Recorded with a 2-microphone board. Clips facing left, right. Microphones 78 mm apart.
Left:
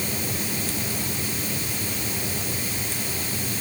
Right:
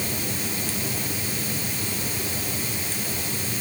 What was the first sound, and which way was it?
Only background noise.